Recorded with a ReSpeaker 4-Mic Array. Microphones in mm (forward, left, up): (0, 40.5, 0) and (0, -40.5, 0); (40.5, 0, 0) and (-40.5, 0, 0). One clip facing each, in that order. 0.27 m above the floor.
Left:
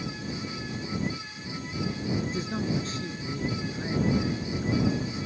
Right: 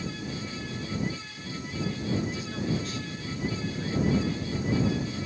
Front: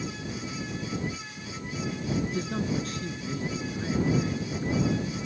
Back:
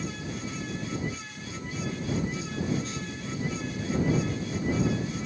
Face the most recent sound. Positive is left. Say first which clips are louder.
# left 1 dB, front 1 dB
turn(degrees=35)